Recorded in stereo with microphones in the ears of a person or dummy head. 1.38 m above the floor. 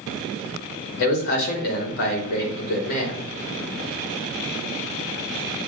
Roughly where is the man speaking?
Left.